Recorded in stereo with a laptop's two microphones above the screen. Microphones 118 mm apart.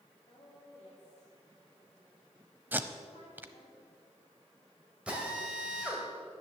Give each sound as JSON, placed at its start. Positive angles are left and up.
{"t": 0.3, "sound": "a woman speaking", "side_deg": 50, "distance_m": 2.5}
{"t": 2.7, "sound": "tape being pulled", "side_deg": -15, "distance_m": 0.8}
{"t": 5.1, "sound": "a drill", "side_deg": -10, "distance_m": 2.0}